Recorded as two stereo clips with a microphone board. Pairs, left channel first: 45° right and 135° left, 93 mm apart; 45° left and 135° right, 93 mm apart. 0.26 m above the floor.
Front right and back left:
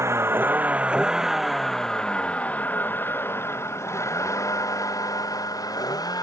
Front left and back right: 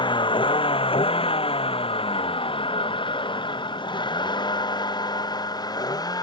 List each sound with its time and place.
0.0 s a vehicle: 75° left; by 6.2 s straight ahead